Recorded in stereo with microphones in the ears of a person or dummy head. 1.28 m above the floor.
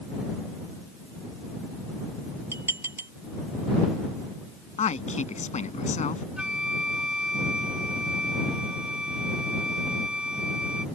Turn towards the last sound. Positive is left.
turn(degrees=-10)  # may be behind; listen again after turning